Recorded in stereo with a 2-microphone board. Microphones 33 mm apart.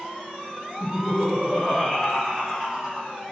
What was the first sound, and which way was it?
Laughter, 20° right (ahead or behind).